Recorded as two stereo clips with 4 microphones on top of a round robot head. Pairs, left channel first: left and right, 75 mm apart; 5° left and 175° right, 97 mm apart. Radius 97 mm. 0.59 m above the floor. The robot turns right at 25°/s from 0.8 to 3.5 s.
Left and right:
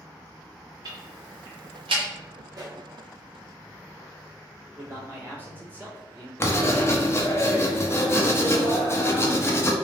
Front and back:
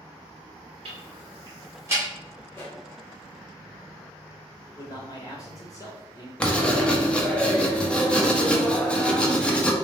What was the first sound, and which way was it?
Ticking, 135° right.